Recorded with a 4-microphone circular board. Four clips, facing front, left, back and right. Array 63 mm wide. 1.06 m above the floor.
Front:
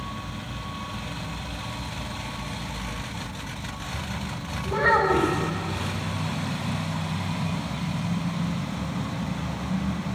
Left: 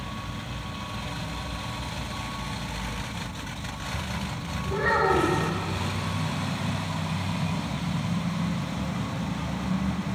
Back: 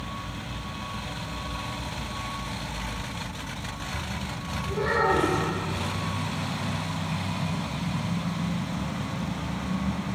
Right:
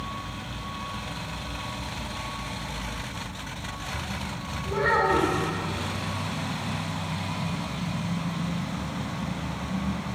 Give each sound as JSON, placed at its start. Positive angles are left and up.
{"t": 4.7, "sound": "a child speaking", "azimuth_deg": -15, "distance_m": 4.5}